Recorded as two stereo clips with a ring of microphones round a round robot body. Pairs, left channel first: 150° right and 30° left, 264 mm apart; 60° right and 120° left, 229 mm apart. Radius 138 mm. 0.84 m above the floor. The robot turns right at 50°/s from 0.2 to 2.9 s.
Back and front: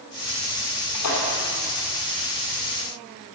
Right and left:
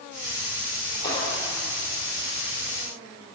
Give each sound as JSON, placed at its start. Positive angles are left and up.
{"t": 0.9, "sound": "a splash", "azimuth_deg": -140, "distance_m": 3.0}